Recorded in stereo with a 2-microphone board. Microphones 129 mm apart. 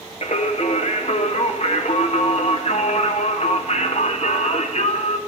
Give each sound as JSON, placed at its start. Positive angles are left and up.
{"t": 0.2, "sound": "singing", "side_deg": 60, "distance_m": 1.0}